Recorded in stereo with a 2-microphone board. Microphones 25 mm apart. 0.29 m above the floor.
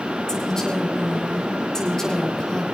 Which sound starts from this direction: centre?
A woman speaking, at 0.3 s.